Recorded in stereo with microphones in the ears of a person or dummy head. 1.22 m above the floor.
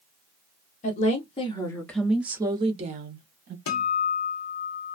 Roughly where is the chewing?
No chewing in this recording.